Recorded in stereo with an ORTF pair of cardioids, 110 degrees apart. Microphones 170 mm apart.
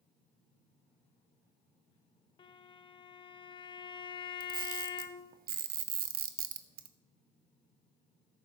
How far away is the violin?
About 0.8 m.